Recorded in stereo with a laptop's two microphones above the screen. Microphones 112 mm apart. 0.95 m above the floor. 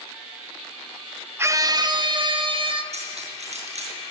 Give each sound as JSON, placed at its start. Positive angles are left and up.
{"t": 1.4, "sound": "a scream", "side_deg": -20, "distance_m": 1.1}
{"t": 2.9, "sound": "cutlery clinking", "side_deg": -75, "distance_m": 8.5}